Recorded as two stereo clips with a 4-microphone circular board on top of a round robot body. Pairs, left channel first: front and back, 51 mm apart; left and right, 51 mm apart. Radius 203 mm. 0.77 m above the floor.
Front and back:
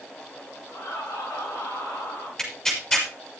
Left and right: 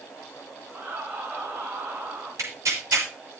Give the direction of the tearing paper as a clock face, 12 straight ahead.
3 o'clock.